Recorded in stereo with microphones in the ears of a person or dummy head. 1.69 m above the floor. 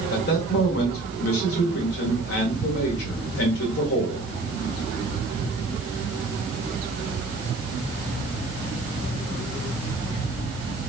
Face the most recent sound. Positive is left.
turn(degrees=65)  # may be behind; listen again after turning